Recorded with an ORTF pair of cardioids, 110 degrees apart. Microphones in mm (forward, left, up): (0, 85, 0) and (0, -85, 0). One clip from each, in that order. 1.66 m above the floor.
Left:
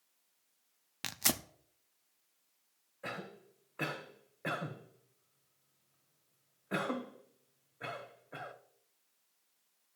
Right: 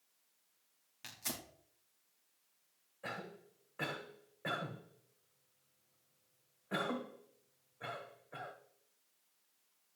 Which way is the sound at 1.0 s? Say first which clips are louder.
Left 10 dB; 65° left.